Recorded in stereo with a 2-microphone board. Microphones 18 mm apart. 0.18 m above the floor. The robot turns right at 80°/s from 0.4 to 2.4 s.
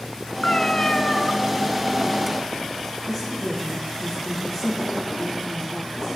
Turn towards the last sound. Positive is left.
turn(degrees=15)  # may be behind; listen again after turning